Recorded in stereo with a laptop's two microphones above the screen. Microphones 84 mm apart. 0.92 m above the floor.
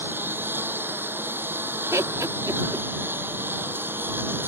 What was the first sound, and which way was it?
A lawn mower, 25° right (ahead or behind).